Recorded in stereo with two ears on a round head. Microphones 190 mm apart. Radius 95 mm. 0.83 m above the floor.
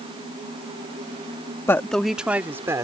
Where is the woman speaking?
10° left (ahead or behind); by 2.8 s 15° right (ahead or behind).